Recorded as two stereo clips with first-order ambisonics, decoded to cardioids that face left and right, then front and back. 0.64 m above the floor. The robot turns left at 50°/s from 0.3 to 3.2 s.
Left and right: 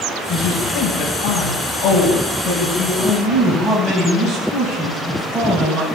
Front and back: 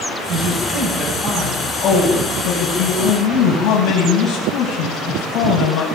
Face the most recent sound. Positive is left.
turn(degrees=-10)